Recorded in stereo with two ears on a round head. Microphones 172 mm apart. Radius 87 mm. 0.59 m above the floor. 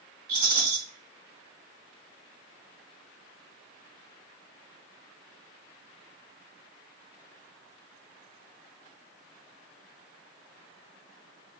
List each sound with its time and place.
0.3 s a rattle: 20° right (ahead or behind), 2 m